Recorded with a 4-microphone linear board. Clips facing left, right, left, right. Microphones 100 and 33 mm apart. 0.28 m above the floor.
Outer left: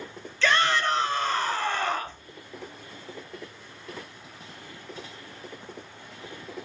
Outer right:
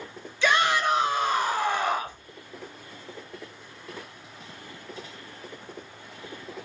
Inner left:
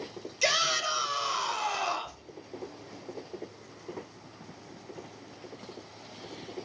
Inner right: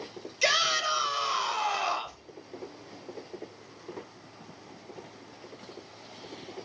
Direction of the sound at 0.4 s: 15° right (ahead or behind).